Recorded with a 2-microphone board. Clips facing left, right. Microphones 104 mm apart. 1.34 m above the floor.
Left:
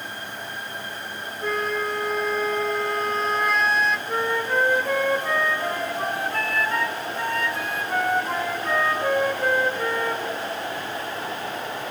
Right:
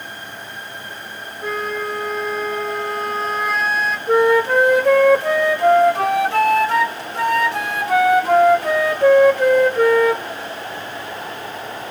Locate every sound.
1.4 s a flute: centre (ahead or behind), 1.5 m
4.1 s a flute: 90° right, 1.0 m